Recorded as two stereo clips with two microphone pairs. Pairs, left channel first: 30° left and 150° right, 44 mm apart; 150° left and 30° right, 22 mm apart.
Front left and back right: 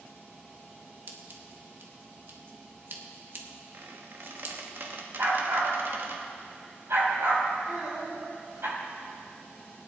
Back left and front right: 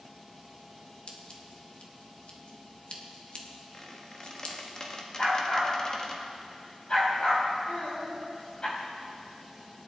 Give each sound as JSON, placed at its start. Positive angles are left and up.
{"t": 1.1, "sound": "scissors", "azimuth_deg": -175, "distance_m": 1.6}
{"t": 3.7, "sound": "a squeak", "azimuth_deg": -155, "distance_m": 1.5}
{"t": 5.2, "sound": "a dog barking", "azimuth_deg": -165, "distance_m": 4.0}
{"t": 7.7, "sound": "a child speaking", "azimuth_deg": 145, "distance_m": 6.0}